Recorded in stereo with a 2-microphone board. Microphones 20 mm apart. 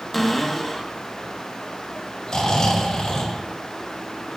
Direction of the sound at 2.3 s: 45° left (ahead or behind).